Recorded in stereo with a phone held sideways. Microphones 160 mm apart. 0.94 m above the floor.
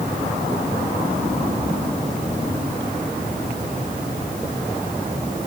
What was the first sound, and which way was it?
Only background noise.